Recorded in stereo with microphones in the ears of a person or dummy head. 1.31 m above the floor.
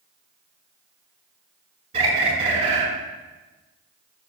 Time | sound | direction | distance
1.9 | a bird | 35° right (ahead or behind) | 5 m